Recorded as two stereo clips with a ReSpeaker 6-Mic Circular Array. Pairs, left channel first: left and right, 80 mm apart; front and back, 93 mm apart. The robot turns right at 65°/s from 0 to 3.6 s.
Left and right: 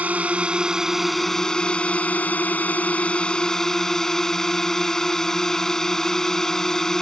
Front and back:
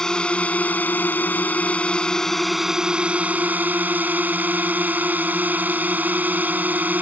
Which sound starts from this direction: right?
A drone, at 0.0 s.